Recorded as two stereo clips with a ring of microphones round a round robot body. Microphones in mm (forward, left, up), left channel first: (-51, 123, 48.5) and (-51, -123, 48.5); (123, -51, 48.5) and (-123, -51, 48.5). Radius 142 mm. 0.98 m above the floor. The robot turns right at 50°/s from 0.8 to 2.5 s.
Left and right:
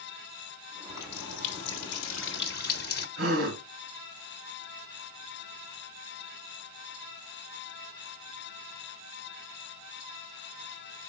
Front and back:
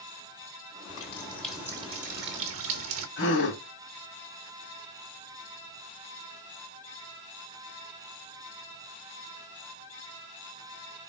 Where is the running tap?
60° left, 1.1 m; by 3.1 s 140° left, 1.1 m.